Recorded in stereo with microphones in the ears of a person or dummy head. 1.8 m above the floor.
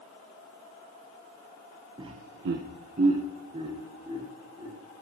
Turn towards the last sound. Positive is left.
turn(degrees=-20)  # may be behind; listen again after turning